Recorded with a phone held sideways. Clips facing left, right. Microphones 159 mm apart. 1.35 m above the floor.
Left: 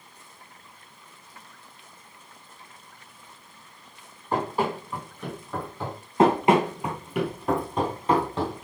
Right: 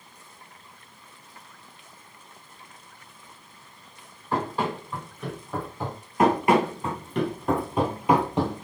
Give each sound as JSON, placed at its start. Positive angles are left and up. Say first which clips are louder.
{"t": 4.3, "sound": "running footsteps", "louder": "left 1 dB", "side_deg": 15, "distance_m": 2.5}
{"t": 6.2, "sound": "running footsteps", "louder": "left 1 dB", "side_deg": 30, "distance_m": 1.5}